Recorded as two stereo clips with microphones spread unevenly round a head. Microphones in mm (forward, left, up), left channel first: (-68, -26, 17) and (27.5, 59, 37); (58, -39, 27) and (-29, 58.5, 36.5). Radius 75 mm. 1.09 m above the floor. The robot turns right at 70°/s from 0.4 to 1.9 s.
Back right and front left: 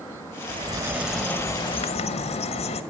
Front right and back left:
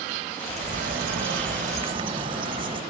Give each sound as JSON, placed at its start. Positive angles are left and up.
{"t": 0.5, "sound": "a bird", "azimuth_deg": 85, "distance_m": 1.1}